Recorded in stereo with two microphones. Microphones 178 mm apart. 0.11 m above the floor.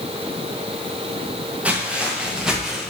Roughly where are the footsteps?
Centre.